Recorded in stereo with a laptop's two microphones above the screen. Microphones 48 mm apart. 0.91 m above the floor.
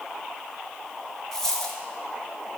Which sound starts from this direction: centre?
A dropped coin, at 1.3 s.